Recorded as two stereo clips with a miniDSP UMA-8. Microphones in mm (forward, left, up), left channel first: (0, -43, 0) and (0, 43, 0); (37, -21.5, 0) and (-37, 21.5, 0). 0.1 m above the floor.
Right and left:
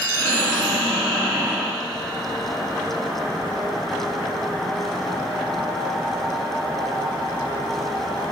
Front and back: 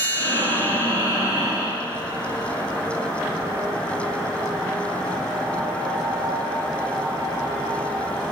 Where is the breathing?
15° right, 2 m.